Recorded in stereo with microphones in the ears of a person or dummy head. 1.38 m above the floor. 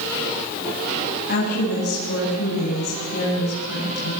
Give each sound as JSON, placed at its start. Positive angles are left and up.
{"t": 1.3, "sound": "a woman speaking", "side_deg": 50, "distance_m": 8.5}